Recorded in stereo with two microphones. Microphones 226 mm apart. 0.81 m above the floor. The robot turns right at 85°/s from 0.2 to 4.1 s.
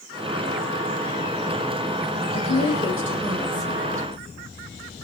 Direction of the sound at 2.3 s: 55° left.